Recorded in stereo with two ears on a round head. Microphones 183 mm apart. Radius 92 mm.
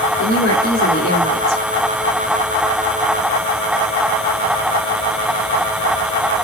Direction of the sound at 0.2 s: 80° left.